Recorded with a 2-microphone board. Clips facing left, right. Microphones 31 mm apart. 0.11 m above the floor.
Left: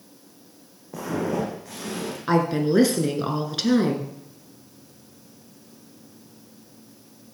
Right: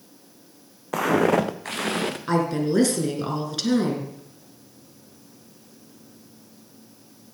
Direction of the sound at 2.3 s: 15° left (ahead or behind).